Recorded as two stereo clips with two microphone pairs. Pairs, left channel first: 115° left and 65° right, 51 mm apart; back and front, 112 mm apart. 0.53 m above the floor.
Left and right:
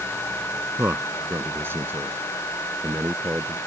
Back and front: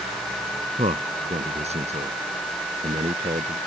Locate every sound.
0.8 s a man speaking: 20° right